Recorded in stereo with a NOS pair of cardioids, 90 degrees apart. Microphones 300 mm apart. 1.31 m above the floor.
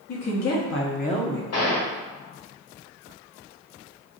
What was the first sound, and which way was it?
A woman speaking, 65° left.